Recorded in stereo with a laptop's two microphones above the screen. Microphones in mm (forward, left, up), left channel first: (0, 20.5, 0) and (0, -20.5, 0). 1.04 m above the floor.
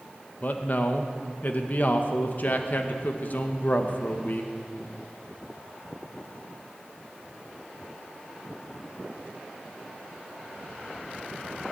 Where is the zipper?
No zipper in this recording.